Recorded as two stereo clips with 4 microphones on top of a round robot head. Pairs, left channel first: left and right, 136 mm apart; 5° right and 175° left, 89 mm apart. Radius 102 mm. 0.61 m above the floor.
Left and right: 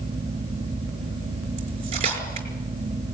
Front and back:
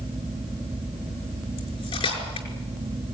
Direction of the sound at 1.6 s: 40° right.